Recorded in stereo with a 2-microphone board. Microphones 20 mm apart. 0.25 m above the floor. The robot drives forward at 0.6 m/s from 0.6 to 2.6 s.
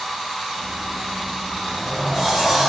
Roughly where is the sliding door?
Centre.